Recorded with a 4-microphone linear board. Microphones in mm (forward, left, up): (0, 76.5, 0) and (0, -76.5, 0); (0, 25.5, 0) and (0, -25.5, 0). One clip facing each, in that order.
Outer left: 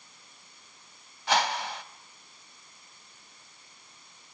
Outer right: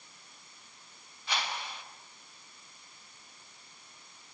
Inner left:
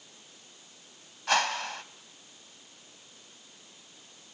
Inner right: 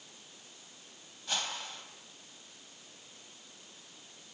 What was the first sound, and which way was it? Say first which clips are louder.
A whoosh: outer left 10 dB, inner left 11 dB; 85° left.